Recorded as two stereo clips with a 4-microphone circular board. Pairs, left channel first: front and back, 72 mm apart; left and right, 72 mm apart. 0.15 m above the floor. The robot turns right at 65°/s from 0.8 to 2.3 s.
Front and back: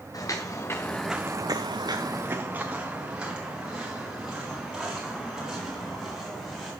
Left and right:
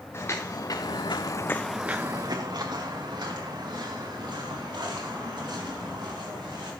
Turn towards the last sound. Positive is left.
turn(degrees=-90)